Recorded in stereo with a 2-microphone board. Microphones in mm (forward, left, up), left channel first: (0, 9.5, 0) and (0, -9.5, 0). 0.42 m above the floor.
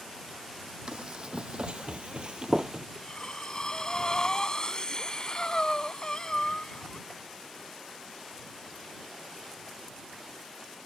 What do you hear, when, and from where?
0.9 s running footsteps: 45° right (ahead or behind); by 2.9 s 25° right (ahead or behind)
3.0 s breathing: 35° left (ahead or behind)